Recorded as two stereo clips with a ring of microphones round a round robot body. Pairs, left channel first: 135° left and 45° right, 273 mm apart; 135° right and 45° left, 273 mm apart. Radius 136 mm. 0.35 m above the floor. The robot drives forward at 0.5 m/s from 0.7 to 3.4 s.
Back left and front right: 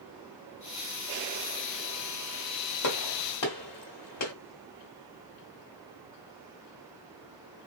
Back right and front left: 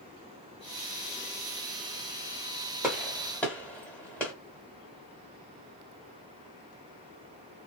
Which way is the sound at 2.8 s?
130° left.